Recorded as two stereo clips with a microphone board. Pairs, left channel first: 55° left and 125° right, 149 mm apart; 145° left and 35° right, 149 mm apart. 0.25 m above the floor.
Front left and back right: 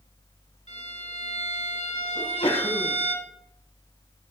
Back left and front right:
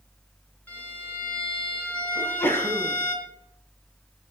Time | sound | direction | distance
0.7 | a violin | 70° left | 3 m
2.1 | a sneeze | 75° left | 1.9 m